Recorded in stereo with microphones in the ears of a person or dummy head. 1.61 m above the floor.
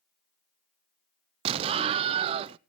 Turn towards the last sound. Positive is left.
turn(degrees=-35)  # may be behind; listen again after turning